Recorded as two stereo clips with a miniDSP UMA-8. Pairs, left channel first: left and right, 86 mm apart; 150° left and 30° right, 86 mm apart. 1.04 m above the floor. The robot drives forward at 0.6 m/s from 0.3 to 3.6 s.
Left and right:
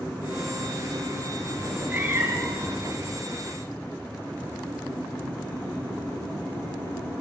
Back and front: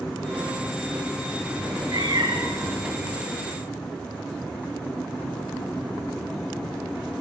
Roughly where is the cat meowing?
Ahead.